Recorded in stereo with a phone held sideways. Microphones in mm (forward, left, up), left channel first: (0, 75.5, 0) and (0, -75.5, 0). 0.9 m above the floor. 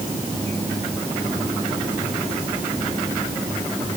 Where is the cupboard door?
No cupboard door in this recording.